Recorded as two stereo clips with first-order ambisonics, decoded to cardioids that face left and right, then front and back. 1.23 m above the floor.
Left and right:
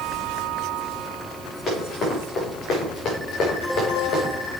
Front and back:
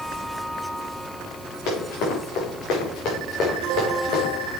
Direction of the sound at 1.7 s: 20° left.